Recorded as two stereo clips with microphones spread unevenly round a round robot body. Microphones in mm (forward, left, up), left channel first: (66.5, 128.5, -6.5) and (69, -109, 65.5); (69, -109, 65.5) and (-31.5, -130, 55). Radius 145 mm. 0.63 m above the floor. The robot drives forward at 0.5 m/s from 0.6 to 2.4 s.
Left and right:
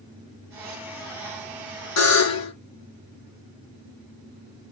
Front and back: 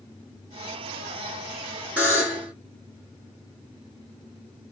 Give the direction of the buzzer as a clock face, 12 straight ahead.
9 o'clock.